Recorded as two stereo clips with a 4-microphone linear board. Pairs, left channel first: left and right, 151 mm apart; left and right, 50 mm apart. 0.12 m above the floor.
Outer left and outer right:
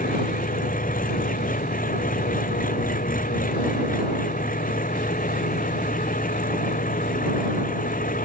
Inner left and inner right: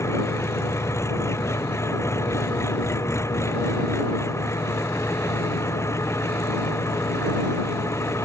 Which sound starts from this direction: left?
An engine running, at 0.0 s.